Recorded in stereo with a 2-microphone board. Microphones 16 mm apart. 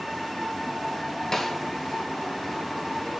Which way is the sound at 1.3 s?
20° left (ahead or behind).